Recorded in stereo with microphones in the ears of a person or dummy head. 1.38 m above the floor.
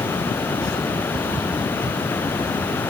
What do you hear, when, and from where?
0.0 s running water: 10° left (ahead or behind)